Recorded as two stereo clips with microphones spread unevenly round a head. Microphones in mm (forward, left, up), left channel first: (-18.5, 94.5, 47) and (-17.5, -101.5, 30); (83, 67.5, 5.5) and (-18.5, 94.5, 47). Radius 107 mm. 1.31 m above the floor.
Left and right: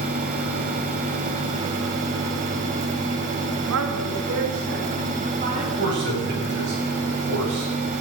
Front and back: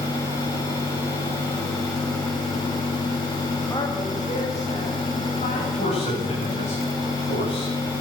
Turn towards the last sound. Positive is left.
turn(degrees=-55)